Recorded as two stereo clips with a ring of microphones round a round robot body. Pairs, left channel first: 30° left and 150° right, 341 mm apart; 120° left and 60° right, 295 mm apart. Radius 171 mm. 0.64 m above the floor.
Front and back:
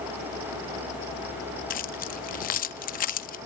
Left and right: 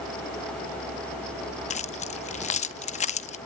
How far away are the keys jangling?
About 0.6 m.